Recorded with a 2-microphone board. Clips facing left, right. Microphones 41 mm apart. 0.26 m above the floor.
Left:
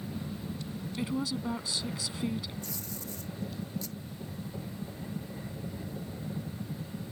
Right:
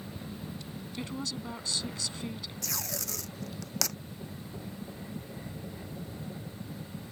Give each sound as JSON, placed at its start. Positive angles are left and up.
{"t": 1.0, "sound": "a woman speaking", "side_deg": 10}
{"t": 2.6, "sound": "tape being pulled", "side_deg": -80}